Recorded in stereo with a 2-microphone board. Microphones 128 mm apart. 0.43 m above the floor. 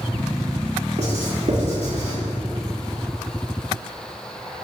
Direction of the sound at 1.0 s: 55° right (ahead or behind).